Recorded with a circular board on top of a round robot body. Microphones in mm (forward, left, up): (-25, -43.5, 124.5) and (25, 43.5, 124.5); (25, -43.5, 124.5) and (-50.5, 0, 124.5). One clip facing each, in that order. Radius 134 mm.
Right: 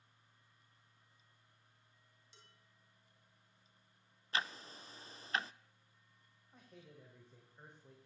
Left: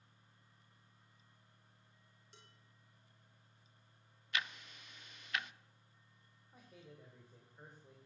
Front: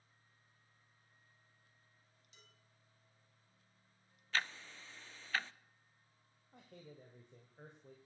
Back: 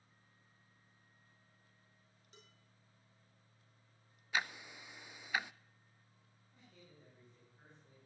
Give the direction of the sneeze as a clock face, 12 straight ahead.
I don't hear a sneeze.